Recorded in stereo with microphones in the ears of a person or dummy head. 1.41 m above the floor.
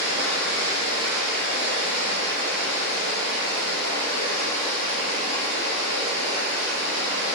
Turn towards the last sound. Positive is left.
turn(degrees=-60)  # may be behind; listen again after turning